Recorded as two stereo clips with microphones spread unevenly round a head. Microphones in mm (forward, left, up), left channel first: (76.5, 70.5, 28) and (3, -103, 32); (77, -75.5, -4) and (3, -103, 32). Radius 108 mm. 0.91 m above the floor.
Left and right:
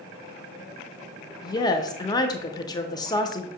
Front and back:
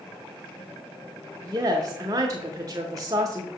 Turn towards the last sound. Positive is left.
turn(degrees=130)